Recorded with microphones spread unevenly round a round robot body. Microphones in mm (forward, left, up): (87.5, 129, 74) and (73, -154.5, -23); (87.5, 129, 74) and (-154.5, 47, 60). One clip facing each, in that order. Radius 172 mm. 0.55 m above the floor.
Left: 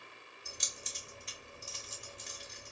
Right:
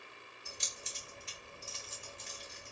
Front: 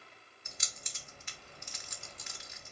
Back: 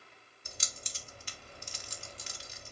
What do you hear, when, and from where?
0.5 s keys jangling: 175° left, 0.6 m